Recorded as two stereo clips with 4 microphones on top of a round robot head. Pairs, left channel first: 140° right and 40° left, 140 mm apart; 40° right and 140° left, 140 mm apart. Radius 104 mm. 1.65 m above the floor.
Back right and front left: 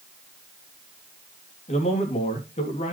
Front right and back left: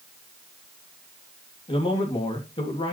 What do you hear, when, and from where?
1.7 s a man speaking: 95° right, 2.5 m